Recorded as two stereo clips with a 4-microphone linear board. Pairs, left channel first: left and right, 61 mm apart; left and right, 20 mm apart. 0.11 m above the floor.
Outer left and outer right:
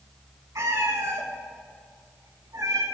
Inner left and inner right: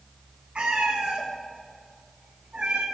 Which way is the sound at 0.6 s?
75° right (ahead or behind).